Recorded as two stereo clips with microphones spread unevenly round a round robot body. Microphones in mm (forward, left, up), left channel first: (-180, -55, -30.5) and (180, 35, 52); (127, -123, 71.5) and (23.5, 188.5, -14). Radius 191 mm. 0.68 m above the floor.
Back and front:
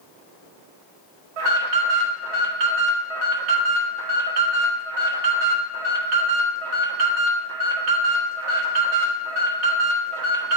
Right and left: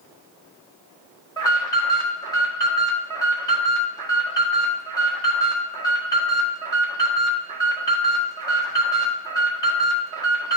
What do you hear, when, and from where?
1.4 s an alarm: 20° left, 1.8 m